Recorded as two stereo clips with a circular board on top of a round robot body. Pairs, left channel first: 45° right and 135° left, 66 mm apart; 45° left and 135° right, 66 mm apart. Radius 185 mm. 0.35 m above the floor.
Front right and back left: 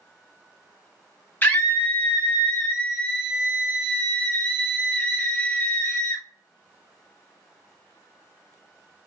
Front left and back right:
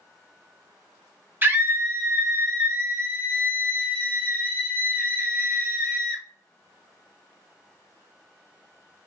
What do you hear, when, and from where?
1.4 s a scream: 95° right, 1.2 m